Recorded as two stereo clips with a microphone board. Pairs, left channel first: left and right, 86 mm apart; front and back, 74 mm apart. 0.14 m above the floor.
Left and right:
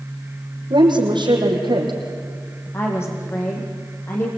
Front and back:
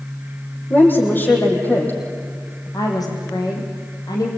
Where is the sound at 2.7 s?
30° left, 6 m.